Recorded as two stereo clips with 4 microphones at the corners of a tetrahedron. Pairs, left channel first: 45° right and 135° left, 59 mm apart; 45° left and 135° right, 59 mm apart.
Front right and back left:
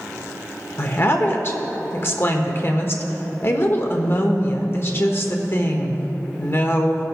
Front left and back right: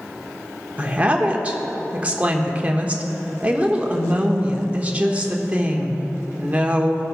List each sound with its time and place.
0.8 s a woman speaking: 75° right, 1.2 m